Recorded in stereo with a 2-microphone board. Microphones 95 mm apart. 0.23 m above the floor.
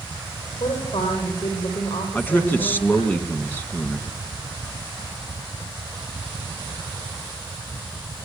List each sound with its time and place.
0.6 s a woman speaking: 80° left, 9.5 m
2.1 s a man speaking: 20° left (ahead or behind), 2.5 m